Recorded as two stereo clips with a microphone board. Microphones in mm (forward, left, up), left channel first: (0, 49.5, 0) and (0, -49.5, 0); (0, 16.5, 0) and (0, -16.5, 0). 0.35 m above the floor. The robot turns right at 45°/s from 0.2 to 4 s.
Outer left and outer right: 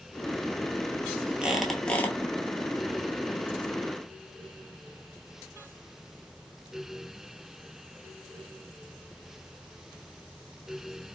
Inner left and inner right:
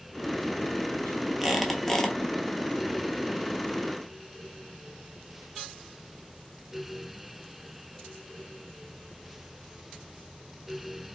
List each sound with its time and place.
1.4 s a squeak: 10° right, 0.7 m; by 2.1 s 20° left, 0.7 m